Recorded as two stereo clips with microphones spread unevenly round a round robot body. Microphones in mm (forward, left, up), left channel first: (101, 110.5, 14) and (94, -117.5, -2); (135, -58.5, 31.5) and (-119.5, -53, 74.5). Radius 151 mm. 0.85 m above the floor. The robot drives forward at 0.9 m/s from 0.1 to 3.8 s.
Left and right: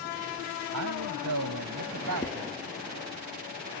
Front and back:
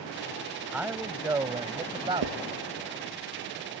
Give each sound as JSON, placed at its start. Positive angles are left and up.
{"t": 0.7, "sound": "a man speaking", "azimuth_deg": -95}
{"t": 2.2, "sound": "writing", "azimuth_deg": 170}